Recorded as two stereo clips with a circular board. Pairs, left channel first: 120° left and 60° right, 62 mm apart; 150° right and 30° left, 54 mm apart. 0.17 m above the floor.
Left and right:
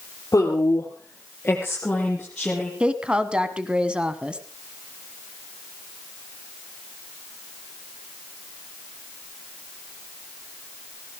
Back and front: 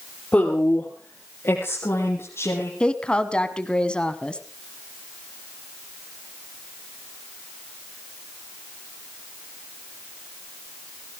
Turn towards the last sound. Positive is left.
turn(degrees=-110)